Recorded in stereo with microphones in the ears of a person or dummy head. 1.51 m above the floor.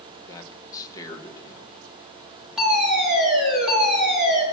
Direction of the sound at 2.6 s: 5° right (ahead or behind).